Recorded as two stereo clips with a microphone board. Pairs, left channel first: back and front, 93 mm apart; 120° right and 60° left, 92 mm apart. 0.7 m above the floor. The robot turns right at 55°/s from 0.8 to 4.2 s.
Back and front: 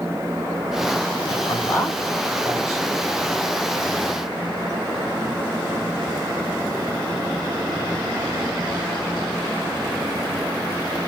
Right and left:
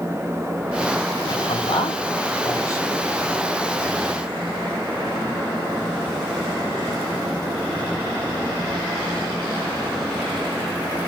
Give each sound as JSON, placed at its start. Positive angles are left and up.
{"t": 1.3, "sound": "a man speaking", "azimuth_deg": -140, "distance_m": 7.5}